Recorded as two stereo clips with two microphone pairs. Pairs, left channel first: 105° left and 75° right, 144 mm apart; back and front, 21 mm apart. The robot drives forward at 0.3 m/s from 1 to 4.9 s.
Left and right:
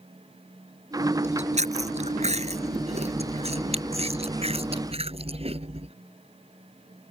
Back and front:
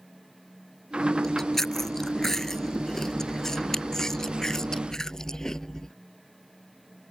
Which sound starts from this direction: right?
Chewing, at 1.2 s.